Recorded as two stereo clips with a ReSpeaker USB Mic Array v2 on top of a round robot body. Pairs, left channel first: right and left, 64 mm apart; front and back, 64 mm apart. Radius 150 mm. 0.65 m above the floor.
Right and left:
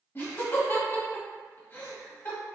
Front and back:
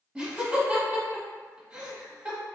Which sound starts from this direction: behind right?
Laughter, at 0.1 s.